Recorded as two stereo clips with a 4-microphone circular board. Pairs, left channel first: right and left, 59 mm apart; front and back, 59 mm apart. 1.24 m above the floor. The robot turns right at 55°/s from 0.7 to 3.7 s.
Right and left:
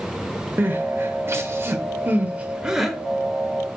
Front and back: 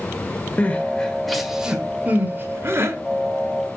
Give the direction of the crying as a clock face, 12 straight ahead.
10 o'clock.